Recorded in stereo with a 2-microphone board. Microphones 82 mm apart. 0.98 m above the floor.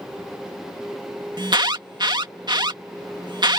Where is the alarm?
60° right (ahead or behind).